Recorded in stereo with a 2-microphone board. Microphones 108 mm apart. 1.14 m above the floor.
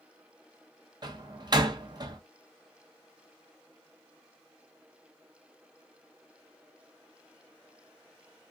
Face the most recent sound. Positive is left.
turn(degrees=-40)  # may be behind; listen again after turning